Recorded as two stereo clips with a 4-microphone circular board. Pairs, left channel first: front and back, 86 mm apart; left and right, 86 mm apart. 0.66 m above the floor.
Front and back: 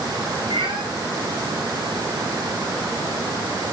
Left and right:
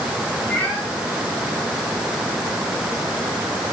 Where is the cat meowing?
165° left, 6 m.